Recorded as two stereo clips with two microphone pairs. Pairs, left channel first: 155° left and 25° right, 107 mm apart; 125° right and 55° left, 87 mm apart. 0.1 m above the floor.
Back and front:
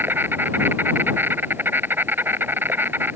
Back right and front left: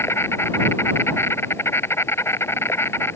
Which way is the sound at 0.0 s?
85° right.